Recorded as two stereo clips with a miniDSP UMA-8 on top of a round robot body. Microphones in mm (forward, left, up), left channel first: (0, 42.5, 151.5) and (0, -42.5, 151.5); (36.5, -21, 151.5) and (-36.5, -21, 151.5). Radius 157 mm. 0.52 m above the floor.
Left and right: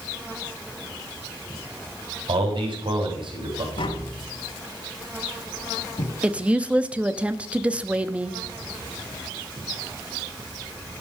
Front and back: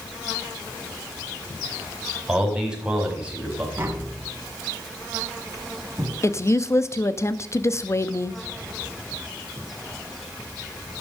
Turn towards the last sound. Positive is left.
turn(degrees=-20)